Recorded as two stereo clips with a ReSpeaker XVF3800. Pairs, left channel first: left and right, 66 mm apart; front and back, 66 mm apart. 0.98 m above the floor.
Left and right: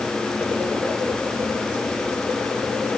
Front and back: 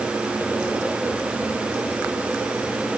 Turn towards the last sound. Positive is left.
No sound to turn to.